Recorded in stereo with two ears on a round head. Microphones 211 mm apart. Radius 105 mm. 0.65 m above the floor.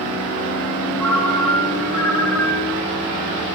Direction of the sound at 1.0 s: Centre (ahead or behind).